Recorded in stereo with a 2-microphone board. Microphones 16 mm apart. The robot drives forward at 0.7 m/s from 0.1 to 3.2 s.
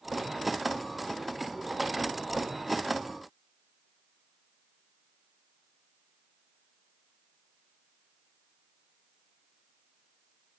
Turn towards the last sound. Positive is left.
No sound to turn to.